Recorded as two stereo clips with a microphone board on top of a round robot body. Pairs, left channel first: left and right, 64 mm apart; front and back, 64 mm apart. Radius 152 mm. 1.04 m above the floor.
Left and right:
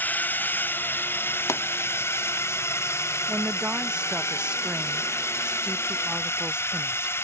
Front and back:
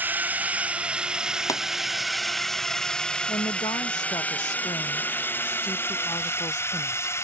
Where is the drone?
135° left; by 7.2 s 45° left.